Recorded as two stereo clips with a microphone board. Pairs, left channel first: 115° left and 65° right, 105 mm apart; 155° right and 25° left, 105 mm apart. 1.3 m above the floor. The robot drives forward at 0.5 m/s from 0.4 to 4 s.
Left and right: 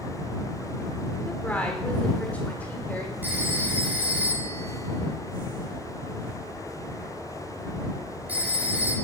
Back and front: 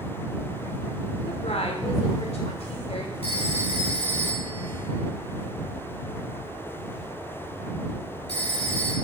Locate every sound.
1.3 s a woman speaking: 170° right, 3.5 m
3.2 s a phone ringing: 140° right, 5 m